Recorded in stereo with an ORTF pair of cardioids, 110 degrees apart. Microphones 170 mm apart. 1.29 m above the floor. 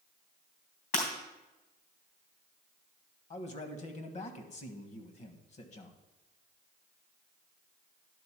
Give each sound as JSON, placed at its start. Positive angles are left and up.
{"t": 0.9, "sound": "breaking glass", "azimuth_deg": 65, "distance_m": 3.0}
{"t": 3.3, "sound": "a man speaking", "azimuth_deg": 45, "distance_m": 1.5}